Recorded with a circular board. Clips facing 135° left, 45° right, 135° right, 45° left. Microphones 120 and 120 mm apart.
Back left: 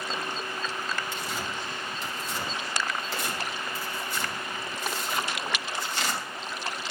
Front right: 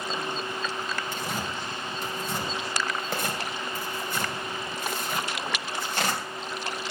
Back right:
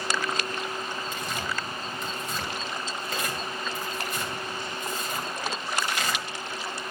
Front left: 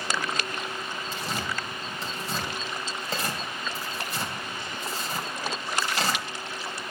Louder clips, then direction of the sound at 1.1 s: Front right 2 dB, even; 10° right.